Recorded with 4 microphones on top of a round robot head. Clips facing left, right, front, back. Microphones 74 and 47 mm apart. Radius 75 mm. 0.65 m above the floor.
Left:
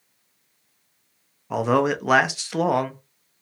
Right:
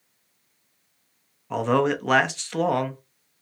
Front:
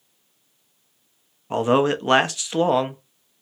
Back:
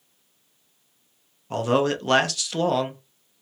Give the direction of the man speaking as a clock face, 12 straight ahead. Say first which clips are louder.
Left 1 dB, front 3 dB; 11 o'clock.